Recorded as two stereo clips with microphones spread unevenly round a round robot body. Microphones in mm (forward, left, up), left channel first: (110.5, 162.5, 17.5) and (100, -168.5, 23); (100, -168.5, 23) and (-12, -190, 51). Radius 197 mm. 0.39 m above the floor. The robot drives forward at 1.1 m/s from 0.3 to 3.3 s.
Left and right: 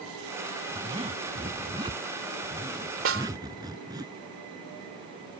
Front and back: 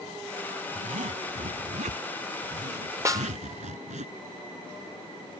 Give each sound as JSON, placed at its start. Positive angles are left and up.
{"t": 0.8, "sound": "a zipper", "azimuth_deg": -165}
{"t": 3.0, "sound": "a snare drum", "azimuth_deg": -100}